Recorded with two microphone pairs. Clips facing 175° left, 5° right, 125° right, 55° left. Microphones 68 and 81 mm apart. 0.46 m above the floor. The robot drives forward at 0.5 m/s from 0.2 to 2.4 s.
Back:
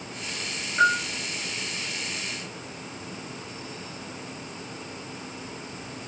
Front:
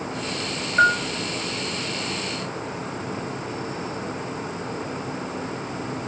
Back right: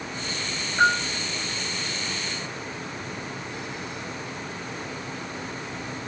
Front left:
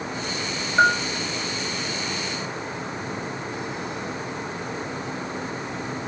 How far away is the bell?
About 1.1 m.